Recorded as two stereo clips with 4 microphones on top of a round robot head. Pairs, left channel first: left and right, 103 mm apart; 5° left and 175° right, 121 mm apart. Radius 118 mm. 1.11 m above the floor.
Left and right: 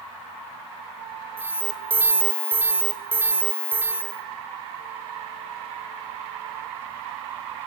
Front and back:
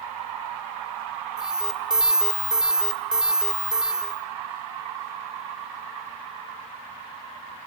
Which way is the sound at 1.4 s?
100° right.